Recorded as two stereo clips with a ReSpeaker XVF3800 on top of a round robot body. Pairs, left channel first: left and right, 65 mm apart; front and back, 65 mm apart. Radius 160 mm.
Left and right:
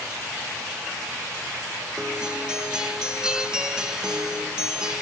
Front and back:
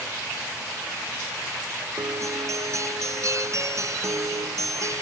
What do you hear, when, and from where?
2.0 s a guitar: 165° right, 1.2 m